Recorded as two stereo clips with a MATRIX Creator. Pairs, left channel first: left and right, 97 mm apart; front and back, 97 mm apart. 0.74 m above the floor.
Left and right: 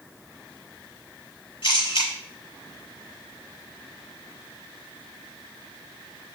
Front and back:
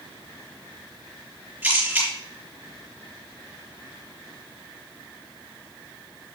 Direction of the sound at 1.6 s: 115° left.